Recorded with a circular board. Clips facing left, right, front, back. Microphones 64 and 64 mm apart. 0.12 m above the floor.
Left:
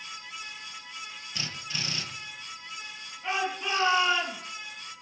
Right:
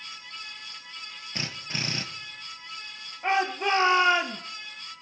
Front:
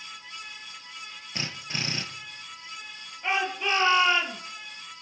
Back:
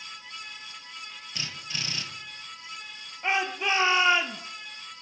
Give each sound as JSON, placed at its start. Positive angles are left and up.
{"t": 1.4, "sound": "a drill", "azimuth_deg": -50, "distance_m": 2.0}
{"t": 3.2, "sound": "a shout", "azimuth_deg": -110, "distance_m": 2.0}